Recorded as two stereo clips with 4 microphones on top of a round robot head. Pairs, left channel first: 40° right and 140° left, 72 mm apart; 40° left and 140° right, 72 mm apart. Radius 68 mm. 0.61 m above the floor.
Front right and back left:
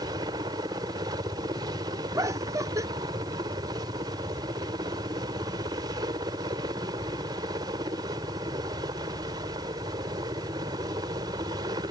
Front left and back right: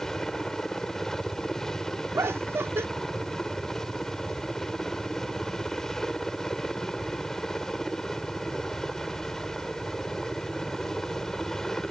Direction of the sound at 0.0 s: 125° left.